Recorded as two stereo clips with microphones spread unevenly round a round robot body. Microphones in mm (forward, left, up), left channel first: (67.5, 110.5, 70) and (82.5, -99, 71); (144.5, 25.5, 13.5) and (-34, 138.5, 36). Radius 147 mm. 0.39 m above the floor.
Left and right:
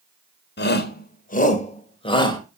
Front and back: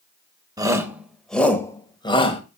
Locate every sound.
0.6 s a shout: 75° left, 1.8 m; by 2.4 s 25° left, 2 m